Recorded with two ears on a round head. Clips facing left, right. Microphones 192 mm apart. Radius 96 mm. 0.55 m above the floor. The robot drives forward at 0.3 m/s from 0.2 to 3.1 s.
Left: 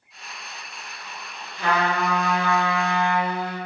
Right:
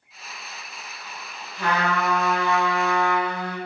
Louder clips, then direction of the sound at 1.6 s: Left 1 dB; 60° right (ahead or behind).